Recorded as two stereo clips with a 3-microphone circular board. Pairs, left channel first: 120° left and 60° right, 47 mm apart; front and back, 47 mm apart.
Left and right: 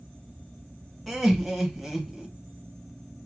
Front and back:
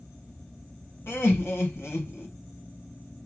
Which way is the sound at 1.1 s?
30° left.